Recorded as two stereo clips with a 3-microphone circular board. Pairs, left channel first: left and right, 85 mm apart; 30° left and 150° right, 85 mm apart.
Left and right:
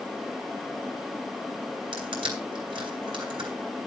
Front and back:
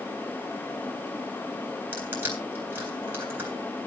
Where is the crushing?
85° right, 3.5 m.